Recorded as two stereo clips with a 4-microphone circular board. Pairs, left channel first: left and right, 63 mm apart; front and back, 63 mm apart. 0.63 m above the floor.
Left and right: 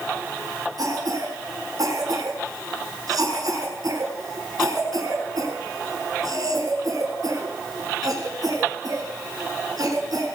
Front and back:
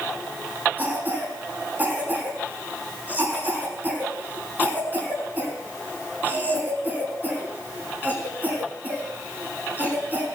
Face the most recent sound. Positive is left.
turn(degrees=-115)